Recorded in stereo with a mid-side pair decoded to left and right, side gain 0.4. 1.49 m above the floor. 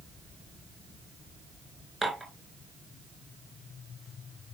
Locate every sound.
2.0 s dishes clattering: 15° right, 4.5 m